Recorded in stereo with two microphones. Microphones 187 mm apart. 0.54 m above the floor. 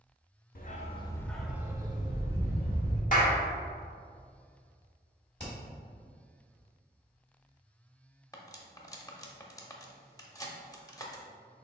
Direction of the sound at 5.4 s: 75° left (ahead or behind).